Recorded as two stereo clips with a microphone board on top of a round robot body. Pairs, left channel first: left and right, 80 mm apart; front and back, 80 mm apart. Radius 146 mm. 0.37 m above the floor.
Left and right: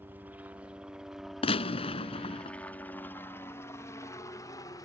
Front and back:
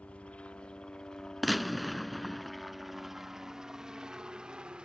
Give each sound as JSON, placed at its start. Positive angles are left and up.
{"t": 0.0, "sound": "a helicopter", "azimuth_deg": -55}
{"t": 1.4, "sound": "a gunshot", "azimuth_deg": 90}